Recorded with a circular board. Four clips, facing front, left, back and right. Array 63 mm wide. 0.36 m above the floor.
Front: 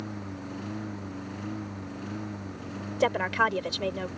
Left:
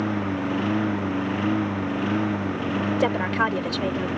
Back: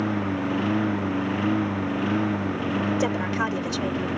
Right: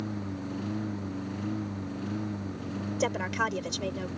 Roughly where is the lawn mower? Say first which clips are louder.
Left 10 dB, back 13 dB; behind left.